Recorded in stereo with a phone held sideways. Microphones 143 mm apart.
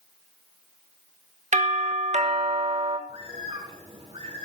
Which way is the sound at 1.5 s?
55° right (ahead or behind).